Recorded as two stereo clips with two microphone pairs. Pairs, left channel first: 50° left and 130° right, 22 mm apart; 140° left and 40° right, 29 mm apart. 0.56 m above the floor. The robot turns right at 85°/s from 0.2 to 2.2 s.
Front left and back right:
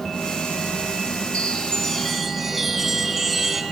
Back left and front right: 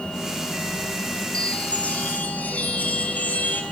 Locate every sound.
1.3 s a chime: 75° left, 3.5 m; by 3.6 s 150° left, 3.5 m